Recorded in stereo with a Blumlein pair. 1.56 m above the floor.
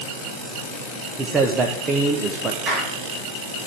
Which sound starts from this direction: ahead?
A man speaking, at 1.2 s.